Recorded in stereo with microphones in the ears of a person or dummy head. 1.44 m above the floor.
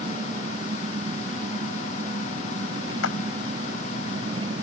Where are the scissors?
I don't hear scissors.